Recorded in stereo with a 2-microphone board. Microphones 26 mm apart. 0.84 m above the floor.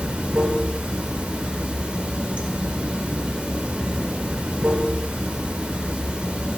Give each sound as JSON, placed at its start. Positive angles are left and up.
{"t": 0.0, "sound": "running water", "side_deg": -55, "distance_m": 2.0}